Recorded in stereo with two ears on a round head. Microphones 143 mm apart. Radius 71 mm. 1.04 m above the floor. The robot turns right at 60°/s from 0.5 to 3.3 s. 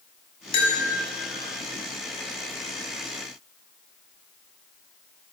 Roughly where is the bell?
Left.